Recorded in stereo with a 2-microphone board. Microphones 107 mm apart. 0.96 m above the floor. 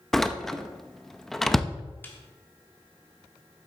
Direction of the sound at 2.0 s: 20° left (ahead or behind).